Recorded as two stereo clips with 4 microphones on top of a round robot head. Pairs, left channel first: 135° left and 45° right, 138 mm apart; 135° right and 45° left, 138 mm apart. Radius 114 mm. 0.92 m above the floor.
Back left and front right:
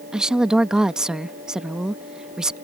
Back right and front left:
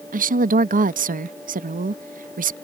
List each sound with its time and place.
0.1 s a woman speaking: 40° left